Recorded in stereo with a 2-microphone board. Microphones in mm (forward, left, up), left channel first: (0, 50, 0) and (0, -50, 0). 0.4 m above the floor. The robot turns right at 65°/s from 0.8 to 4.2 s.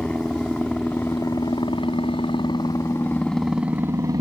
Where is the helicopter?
10° left (ahead or behind); by 4.2 s 45° right (ahead or behind).